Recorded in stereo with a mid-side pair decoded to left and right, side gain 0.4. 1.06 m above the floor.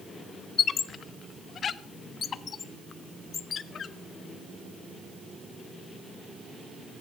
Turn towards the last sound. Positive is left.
turn(degrees=55)